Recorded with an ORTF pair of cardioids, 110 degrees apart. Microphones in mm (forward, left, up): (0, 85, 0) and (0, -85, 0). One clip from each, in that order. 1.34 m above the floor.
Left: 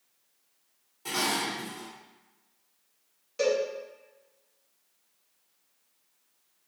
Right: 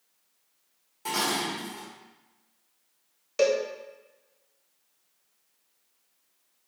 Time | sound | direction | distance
1.1 | dishes clattering | 30° right | 1.6 m
3.4 | a cowbell | 50° right | 0.9 m